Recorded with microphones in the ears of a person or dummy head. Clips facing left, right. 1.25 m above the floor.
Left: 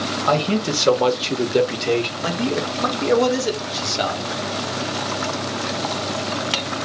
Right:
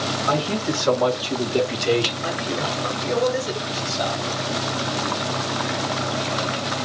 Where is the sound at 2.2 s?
75° left (ahead or behind), 1.3 m.